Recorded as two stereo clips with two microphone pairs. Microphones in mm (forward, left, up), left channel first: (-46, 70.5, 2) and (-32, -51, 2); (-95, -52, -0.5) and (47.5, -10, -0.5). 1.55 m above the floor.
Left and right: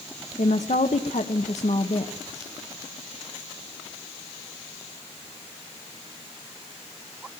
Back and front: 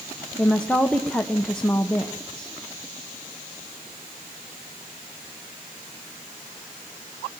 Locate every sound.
0.4 s a woman speaking: 115° left, 1.2 m